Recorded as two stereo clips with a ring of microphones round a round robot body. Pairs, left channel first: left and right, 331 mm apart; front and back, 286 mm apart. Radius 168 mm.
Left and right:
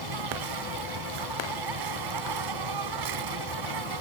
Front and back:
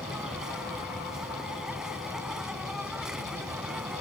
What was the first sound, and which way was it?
An insect, 90° right.